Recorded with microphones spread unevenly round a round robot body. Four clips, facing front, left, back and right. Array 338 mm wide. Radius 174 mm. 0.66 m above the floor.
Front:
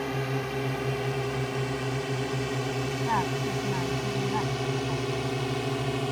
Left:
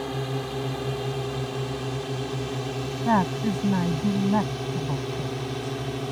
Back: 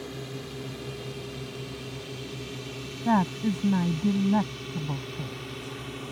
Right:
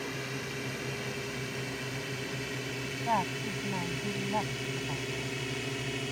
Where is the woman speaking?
145° left.